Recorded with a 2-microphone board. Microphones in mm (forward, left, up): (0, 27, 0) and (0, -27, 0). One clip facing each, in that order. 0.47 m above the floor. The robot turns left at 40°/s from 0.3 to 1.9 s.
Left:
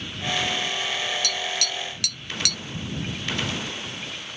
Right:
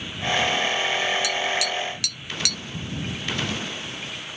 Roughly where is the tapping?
Centre.